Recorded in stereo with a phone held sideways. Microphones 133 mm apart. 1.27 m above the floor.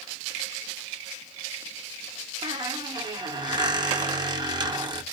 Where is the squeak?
35° right (ahead or behind), 0.7 m.